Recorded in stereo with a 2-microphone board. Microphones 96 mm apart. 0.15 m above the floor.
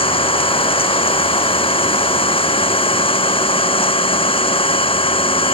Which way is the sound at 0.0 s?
70° left (ahead or behind).